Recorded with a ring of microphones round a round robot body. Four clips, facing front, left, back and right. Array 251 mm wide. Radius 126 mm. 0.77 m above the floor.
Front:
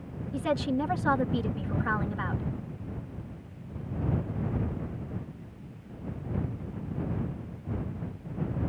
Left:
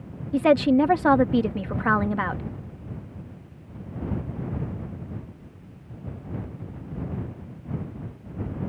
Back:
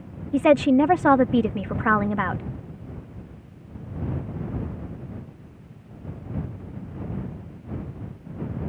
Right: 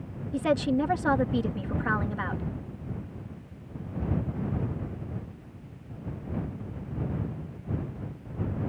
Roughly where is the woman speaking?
Behind left.